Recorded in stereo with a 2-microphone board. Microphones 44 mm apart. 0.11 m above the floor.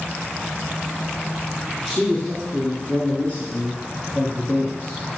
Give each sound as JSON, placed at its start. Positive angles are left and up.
{"t": 1.9, "sound": "a man speaking", "side_deg": 5, "distance_m": 1.5}